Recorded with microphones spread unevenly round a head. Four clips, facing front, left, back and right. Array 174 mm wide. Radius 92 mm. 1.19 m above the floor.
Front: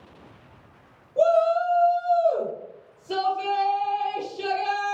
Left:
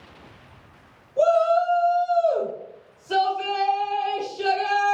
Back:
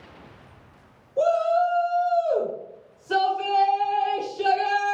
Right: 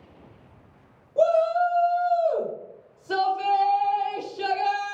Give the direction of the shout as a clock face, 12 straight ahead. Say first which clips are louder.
Left 2 dB, front 1 dB; 2 o'clock.